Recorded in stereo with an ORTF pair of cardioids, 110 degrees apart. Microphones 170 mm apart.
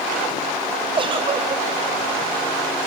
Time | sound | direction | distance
1.0 | a giggle | 30° right | 1.4 m